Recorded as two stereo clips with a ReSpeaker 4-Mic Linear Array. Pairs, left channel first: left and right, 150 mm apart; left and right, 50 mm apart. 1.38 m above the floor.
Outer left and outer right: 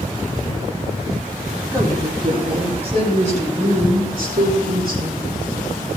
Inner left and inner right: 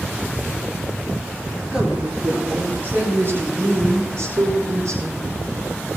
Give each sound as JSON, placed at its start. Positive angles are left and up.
{"t": 1.7, "sound": "a woman speaking", "side_deg": -20, "distance_m": 4.5}